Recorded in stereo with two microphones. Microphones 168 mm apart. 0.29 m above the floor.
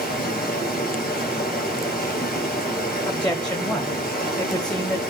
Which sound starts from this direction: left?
Running water, at 0.0 s.